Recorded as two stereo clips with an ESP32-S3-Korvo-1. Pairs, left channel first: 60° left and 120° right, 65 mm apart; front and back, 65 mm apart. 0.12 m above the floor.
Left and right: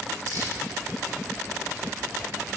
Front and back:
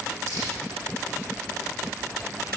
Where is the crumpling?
150° right, 4 m.